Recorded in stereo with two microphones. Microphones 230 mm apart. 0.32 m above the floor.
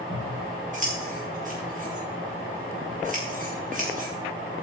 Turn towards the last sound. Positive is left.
turn(degrees=-35)  # may be behind; listen again after turning